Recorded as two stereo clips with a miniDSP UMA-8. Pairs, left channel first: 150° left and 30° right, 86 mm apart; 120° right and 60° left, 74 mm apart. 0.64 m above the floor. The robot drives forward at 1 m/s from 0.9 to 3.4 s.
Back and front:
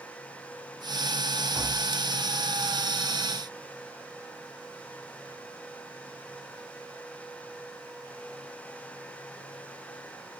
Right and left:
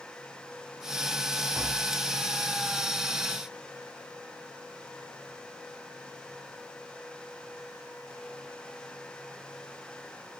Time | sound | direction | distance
1.6 | tapping | 10° left | 3 m